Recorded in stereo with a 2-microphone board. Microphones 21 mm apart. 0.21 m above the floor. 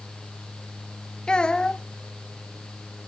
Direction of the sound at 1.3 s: 40° left (ahead or behind).